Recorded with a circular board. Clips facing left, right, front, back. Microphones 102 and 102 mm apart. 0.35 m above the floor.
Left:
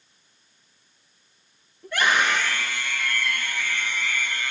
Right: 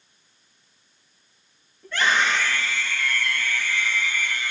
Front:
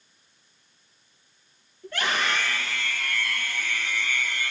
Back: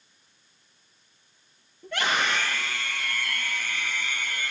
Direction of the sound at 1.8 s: 165° left.